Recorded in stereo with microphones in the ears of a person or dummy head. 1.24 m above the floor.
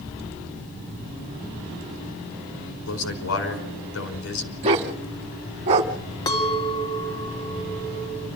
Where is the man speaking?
85° left, 4.5 m.